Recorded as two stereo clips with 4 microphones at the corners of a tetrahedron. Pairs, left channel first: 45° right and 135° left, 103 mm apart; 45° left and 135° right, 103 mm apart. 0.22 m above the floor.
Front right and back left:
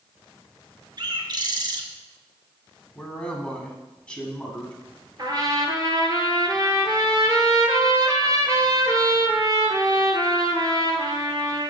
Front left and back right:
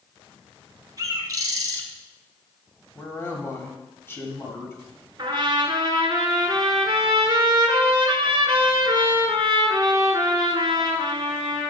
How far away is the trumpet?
About 0.9 m.